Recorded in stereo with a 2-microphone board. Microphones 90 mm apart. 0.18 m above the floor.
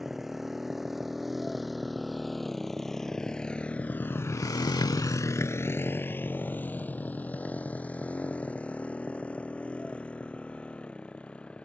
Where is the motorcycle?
5° right (ahead or behind); by 11.7 s 15° left (ahead or behind).